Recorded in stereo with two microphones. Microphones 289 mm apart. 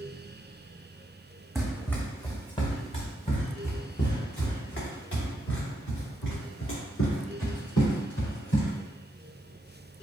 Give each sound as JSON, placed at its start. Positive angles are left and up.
{"t": 1.6, "sound": "running footsteps", "side_deg": 0, "distance_m": 1.5}